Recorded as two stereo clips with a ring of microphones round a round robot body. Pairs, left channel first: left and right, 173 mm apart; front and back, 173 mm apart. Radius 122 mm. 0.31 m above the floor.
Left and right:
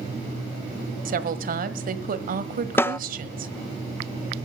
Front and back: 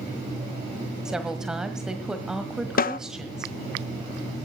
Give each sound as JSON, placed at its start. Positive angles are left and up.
{"t": 1.1, "sound": "a woman speaking", "azimuth_deg": -95, "distance_m": 1.5}
{"t": 2.8, "sound": "a snare drum", "azimuth_deg": 15, "distance_m": 0.5}